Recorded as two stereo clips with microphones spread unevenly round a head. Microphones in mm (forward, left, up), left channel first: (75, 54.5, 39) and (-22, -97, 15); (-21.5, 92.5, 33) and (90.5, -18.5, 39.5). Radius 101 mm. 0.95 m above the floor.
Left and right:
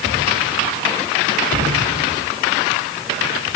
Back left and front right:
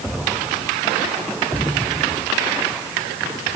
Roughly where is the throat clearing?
I don't hear throat clearing.